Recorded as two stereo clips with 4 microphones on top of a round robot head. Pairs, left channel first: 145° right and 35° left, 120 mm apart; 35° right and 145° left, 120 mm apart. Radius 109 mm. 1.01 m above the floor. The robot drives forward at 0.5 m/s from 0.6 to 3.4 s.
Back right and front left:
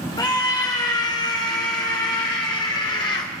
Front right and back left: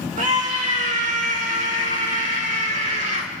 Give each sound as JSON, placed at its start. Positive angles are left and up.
{"t": 0.2, "sound": "a scream", "azimuth_deg": 160, "distance_m": 3.0}